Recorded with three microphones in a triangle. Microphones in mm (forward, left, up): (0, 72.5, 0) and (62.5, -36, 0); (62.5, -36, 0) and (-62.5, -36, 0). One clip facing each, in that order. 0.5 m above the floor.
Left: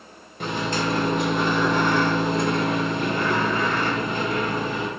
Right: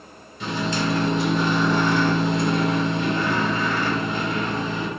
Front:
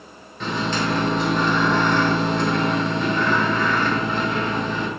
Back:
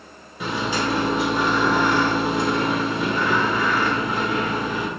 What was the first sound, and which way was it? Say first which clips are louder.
A microwave: right 1 dB, even; 100° left.